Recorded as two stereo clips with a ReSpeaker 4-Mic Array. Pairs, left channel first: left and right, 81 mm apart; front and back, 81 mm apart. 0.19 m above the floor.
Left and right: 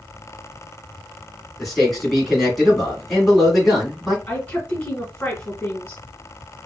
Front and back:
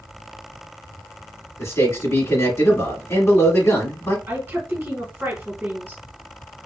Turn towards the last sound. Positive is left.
turn(degrees=140)